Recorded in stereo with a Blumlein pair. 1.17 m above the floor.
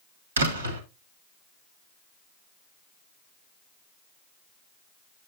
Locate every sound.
0.4 s a door slam: 70° right, 1.7 m